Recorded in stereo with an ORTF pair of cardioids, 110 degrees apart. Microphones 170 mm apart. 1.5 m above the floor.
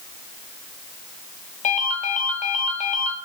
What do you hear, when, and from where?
1.6 s a ringtone: 50° left, 2 m